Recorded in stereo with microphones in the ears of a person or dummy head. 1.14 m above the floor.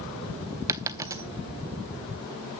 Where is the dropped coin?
15° right (ahead or behind), 0.8 m.